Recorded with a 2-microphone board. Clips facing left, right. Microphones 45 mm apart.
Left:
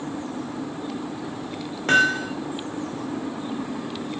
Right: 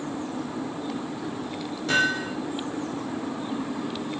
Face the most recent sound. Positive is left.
turn(degrees=50)  # may be behind; listen again after turning